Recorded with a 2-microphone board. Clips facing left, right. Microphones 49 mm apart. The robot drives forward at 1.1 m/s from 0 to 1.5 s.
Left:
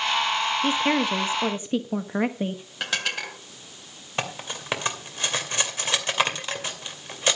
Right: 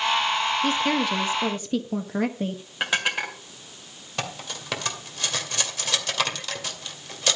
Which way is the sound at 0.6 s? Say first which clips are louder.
Left 1 dB; 20° left (ahead or behind).